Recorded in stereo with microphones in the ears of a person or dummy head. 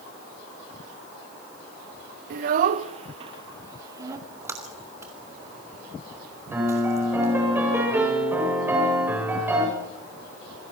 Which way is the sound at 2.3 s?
50° right (ahead or behind).